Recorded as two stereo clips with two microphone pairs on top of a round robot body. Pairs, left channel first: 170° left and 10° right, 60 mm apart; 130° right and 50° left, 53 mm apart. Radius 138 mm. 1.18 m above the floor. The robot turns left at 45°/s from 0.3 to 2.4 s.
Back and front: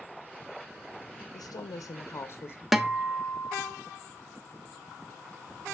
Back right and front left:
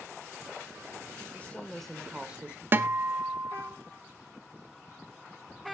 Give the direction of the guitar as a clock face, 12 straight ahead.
9 o'clock.